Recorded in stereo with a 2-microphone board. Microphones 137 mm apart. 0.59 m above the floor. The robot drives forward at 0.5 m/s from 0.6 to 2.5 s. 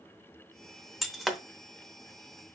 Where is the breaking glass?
Centre (ahead or behind), 0.6 m.